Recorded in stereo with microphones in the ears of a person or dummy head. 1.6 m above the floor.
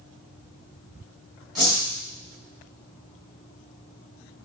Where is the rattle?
No rattle in this recording.